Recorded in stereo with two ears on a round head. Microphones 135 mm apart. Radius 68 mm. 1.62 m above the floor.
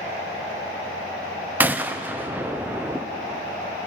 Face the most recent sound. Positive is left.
turn(degrees=-10)  # may be behind; listen again after turning